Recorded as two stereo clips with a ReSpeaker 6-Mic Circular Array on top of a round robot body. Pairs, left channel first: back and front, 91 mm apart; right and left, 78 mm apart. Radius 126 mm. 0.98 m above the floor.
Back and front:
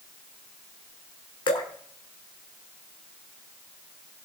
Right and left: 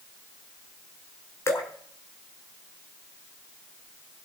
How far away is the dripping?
About 1.6 m.